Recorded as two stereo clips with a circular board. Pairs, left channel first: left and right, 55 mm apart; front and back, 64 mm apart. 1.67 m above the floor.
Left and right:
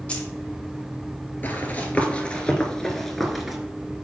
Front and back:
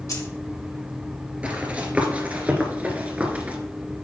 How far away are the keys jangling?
About 2 m.